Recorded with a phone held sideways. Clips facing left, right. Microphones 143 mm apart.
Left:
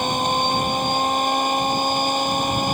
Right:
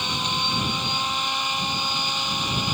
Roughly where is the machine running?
Left.